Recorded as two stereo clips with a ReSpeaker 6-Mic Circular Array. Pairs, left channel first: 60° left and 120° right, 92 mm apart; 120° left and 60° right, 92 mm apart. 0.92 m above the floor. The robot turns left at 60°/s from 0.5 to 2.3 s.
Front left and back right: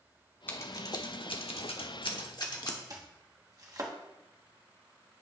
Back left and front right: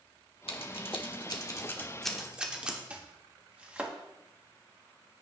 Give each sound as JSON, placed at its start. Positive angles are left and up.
{"t": 0.5, "sound": "scissors", "azimuth_deg": 130, "distance_m": 1.2}
{"t": 2.9, "sound": "chopping", "azimuth_deg": -130, "distance_m": 1.1}